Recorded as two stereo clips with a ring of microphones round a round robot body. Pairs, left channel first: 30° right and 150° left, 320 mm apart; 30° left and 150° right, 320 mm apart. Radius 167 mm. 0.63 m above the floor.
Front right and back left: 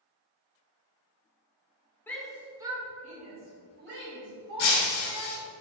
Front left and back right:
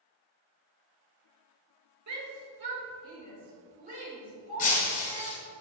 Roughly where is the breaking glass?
Ahead right.